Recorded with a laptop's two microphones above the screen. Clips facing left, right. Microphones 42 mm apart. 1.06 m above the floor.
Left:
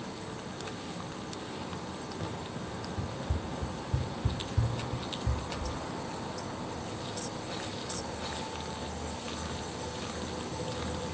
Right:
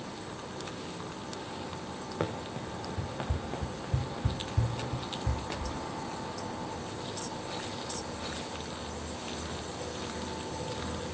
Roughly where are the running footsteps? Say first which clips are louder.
Right 3 dB; right.